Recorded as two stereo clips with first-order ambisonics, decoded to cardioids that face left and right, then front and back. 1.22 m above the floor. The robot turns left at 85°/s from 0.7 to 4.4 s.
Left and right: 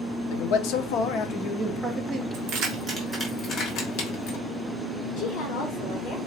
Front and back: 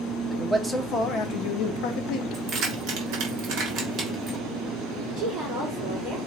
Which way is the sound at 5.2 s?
130° left.